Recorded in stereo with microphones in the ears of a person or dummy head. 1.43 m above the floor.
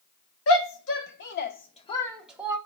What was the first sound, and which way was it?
A shout, 70° left (ahead or behind).